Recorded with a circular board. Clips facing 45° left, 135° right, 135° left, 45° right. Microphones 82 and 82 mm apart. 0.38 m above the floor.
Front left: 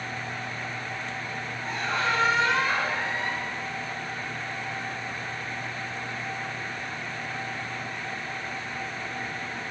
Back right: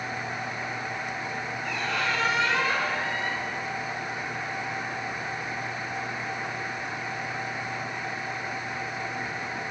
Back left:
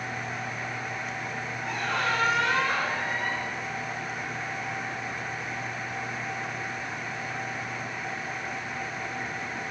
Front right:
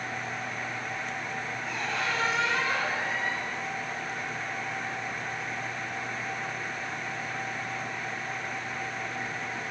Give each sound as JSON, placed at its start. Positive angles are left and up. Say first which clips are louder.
{"t": 1.6, "sound": "a squeak", "louder": "front left 2 dB, back left 4 dB", "azimuth_deg": 100, "distance_m": 1.4}